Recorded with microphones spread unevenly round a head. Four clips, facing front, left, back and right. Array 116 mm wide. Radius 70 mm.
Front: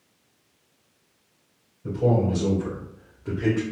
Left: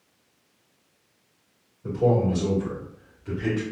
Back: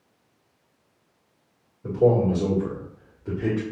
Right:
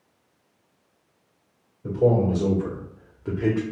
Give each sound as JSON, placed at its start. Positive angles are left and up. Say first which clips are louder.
{"t": 1.8, "sound": "a man speaking", "louder": "right 2 dB, back 3 dB", "azimuth_deg": -165, "distance_m": 1.8}